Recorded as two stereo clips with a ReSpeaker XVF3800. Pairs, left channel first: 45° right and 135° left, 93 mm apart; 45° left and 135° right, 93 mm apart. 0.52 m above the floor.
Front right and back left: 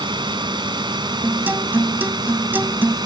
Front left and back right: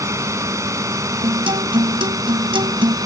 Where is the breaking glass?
No breaking glass in this recording.